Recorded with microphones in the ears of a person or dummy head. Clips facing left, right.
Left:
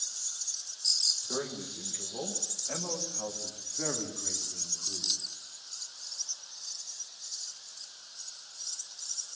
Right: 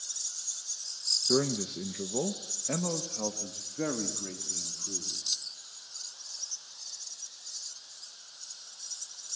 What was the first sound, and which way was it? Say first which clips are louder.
A man speaking: right 8 dB; 55° right (ahead or behind).